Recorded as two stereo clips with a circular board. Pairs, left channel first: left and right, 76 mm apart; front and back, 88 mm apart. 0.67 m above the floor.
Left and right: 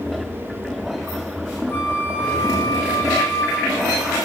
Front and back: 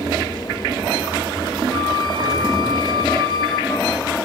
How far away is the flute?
About 7 m.